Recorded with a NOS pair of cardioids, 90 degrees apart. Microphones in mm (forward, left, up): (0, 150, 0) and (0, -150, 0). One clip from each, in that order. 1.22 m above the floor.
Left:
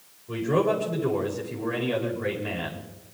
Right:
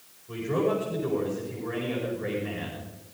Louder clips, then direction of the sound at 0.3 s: Left 3 dB; 40° left.